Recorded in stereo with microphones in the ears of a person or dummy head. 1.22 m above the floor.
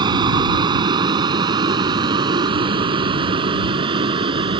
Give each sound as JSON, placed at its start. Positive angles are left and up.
{"t": 0.0, "sound": "a vehicle", "side_deg": -25}